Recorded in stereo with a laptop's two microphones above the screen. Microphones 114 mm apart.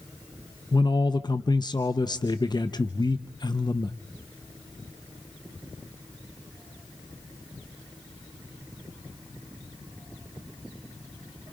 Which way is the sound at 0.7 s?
40° left (ahead or behind).